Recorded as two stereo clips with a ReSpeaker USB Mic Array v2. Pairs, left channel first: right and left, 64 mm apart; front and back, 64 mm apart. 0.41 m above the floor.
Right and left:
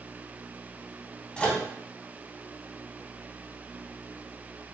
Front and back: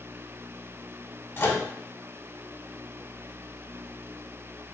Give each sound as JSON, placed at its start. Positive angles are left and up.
{"t": 1.4, "sound": "a microwave", "azimuth_deg": -25, "distance_m": 0.8}